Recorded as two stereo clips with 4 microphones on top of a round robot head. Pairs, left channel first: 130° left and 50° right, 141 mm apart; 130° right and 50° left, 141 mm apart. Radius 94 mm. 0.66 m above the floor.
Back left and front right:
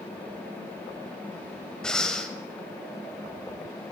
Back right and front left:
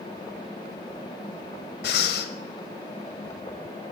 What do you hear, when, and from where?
1.8 s breathing: 145° right, 0.8 m